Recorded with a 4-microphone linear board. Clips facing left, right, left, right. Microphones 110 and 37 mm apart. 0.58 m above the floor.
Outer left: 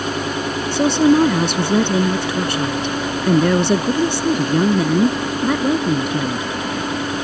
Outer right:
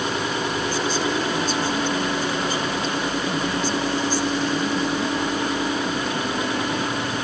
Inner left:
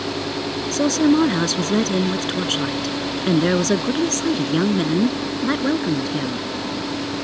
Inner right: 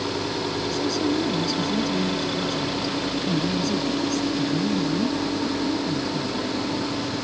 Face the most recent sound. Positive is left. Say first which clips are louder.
# outer left 15 dB, inner left 9 dB
turn(degrees=85)